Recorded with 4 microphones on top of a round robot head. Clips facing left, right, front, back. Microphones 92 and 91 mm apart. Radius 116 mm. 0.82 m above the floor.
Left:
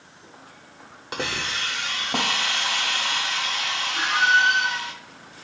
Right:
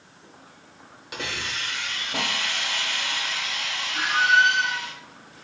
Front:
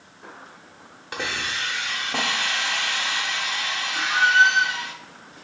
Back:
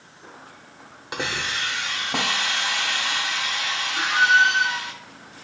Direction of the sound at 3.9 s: 50° right.